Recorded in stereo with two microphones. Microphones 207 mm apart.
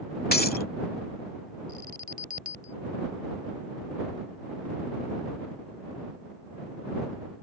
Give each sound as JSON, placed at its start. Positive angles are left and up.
{"t": 0.3, "sound": "breaking glass", "side_deg": 50}
{"t": 1.7, "sound": "an alarm", "side_deg": -45}